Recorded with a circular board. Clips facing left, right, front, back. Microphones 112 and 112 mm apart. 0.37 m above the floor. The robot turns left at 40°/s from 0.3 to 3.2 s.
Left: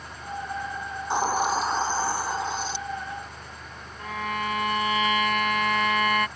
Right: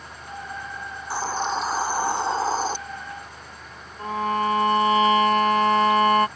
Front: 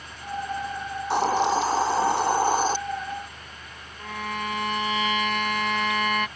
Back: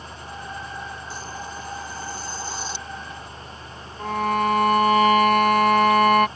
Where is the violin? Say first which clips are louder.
Right 7 dB, back 10 dB; 145° right.